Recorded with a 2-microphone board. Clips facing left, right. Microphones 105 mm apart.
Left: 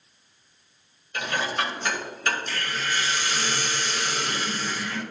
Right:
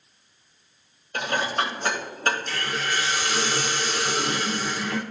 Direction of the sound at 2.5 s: 60° right (ahead or behind).